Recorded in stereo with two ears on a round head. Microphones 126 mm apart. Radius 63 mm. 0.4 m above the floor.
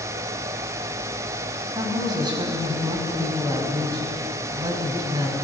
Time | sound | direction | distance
1.8 | a woman speaking | 30° right (ahead or behind) | 3 m